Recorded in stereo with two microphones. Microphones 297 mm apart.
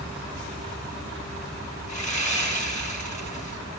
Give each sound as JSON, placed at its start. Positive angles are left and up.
{"t": 1.9, "sound": "sawing", "side_deg": 25, "distance_m": 4.0}